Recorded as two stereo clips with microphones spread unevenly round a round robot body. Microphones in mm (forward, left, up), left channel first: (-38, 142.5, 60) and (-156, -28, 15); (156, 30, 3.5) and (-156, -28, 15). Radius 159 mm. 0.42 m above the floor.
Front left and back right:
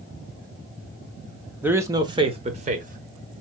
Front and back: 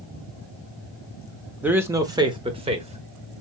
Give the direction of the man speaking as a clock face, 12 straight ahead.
3 o'clock.